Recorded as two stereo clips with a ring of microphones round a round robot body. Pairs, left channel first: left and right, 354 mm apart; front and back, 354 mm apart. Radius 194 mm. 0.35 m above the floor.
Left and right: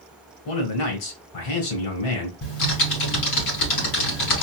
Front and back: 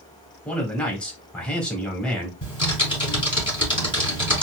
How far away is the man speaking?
About 1.7 m.